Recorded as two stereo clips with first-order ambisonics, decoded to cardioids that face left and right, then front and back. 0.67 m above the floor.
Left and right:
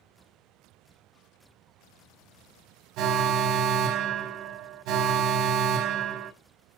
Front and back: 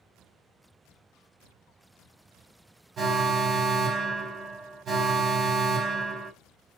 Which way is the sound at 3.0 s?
115° right.